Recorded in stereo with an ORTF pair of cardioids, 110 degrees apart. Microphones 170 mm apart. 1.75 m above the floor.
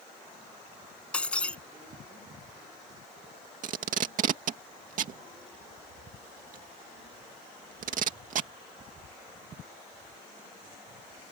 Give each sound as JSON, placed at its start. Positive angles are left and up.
{"t": 1.1, "sound": "breaking glass", "azimuth_deg": 5}
{"t": 3.6, "sound": "tape being pulled", "azimuth_deg": -55}